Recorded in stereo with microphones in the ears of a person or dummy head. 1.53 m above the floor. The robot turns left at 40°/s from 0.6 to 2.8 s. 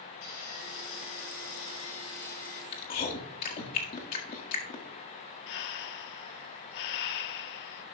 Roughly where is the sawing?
Behind left.